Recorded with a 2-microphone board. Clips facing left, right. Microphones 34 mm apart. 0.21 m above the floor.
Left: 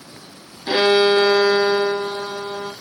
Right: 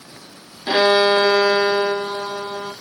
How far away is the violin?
About 1.4 m.